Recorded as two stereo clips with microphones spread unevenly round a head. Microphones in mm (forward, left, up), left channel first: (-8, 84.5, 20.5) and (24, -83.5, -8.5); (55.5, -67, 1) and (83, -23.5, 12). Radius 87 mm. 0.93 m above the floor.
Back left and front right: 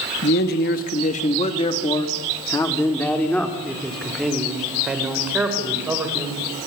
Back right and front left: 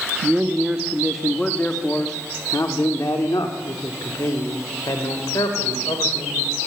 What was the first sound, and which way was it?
A man speaking, 130° left.